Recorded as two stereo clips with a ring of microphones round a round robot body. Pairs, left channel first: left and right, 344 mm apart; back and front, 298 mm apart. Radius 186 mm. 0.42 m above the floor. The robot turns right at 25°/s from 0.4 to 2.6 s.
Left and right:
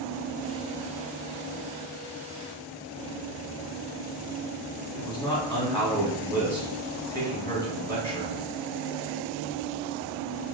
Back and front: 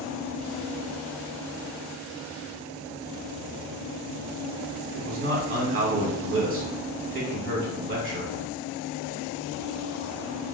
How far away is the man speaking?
About 1.4 m.